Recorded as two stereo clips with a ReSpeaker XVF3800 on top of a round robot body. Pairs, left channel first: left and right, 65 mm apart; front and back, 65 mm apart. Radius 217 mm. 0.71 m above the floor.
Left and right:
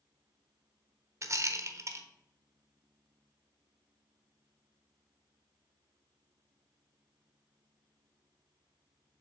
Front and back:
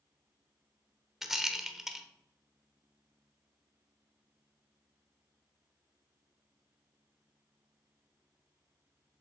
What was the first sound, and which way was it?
A rattle, 95° right.